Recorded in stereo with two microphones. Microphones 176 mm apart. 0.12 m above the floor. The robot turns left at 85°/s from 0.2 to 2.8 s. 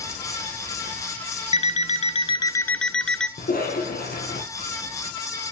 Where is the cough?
60° left (ahead or behind), 3 m.